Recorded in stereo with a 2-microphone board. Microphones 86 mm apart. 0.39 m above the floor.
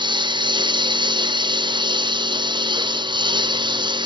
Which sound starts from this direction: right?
A lawn mower, at 0.0 s.